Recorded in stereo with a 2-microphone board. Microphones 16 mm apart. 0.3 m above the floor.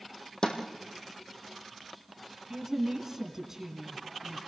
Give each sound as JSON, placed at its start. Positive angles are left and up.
{"t": 0.4, "sound": "a snare drum", "side_deg": 55, "distance_m": 3.5}
{"t": 2.5, "sound": "a woman speaking", "side_deg": -25, "distance_m": 3.5}